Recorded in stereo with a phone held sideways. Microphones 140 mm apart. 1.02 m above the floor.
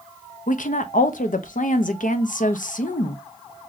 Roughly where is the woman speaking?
Left.